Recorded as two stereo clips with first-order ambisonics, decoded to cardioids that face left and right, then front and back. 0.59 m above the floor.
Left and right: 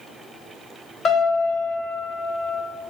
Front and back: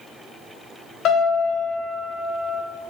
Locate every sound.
1.1 s a piano: 45° left, 1.7 m